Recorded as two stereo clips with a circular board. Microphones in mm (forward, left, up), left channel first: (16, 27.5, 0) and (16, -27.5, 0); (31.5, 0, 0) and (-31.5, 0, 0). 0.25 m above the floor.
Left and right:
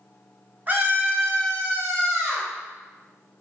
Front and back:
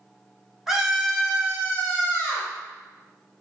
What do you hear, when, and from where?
0.7 s a scream: 100° right, 1.3 m; by 2.5 s 55° right, 1.9 m